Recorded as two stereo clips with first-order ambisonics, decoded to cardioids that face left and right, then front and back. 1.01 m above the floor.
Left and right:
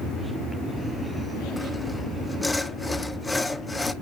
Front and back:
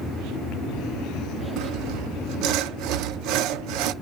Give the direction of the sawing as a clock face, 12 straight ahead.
6 o'clock.